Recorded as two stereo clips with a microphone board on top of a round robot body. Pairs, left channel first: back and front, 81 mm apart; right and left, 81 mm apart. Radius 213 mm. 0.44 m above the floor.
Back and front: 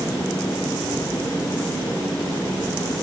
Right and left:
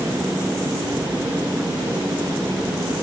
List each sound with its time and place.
Only background noise.